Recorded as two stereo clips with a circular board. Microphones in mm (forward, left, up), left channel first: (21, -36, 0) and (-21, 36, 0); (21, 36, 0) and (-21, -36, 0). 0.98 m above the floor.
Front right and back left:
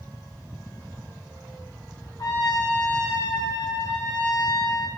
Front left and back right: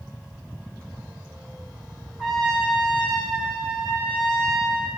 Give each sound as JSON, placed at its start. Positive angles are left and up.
{"t": 2.2, "sound": "a trumpet", "azimuth_deg": -25, "distance_m": 1.1}